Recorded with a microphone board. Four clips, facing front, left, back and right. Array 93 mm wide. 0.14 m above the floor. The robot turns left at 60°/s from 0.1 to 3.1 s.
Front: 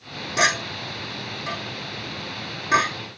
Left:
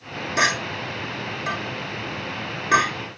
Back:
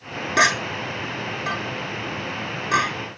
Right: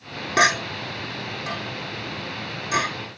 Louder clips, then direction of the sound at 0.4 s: Right 3 dB, back 3 dB; 120° right.